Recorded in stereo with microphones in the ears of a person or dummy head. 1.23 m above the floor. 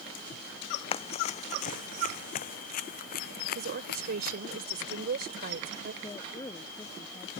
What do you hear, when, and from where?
0.9 s running footsteps: 25° left (ahead or behind); by 4.4 s 50° left (ahead or behind)
3.5 s a woman speaking: 55° right (ahead or behind)
6.0 s a woman speaking: 25° left (ahead or behind)